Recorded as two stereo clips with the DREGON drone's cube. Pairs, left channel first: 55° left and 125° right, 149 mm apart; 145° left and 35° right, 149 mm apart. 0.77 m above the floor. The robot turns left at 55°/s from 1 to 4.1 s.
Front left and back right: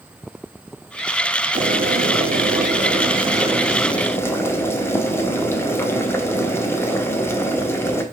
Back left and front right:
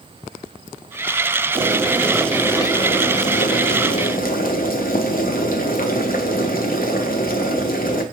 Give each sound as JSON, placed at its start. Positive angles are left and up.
{"t": 1.6, "sound": "boiling", "azimuth_deg": -90, "distance_m": 0.7}